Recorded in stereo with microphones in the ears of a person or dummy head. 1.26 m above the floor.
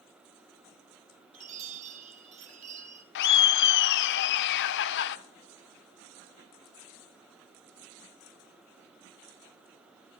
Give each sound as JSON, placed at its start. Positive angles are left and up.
{"t": 1.3, "sound": "a chime", "side_deg": -35, "distance_m": 1.1}
{"t": 3.1, "sound": "laughter", "side_deg": 60, "distance_m": 0.5}